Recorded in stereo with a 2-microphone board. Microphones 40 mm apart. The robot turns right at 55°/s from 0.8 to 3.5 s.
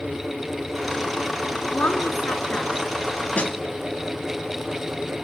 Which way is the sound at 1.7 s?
95° left.